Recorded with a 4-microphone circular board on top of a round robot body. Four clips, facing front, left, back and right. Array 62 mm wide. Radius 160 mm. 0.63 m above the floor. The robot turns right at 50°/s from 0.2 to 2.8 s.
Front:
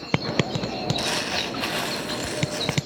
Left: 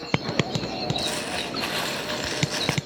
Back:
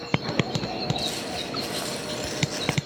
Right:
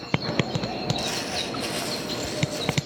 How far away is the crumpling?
About 1.9 m.